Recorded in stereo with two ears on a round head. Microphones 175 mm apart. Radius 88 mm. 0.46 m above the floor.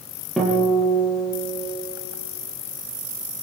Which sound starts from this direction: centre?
A guitar, at 0.4 s.